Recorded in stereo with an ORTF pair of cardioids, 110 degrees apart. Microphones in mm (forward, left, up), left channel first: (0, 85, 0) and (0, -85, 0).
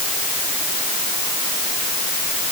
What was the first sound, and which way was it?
Only background noise.